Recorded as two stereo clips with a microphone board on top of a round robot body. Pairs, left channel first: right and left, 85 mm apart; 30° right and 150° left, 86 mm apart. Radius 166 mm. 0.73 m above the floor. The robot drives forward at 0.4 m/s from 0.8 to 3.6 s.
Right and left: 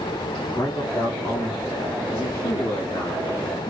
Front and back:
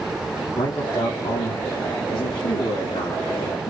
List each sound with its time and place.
0.6 s a man speaking: 30° right, 3 m; by 3.7 s 50° right, 2 m